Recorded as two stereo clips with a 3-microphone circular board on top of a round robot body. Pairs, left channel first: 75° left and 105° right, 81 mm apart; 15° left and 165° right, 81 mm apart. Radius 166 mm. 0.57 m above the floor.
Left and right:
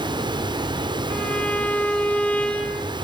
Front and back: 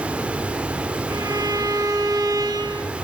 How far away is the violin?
About 2 m.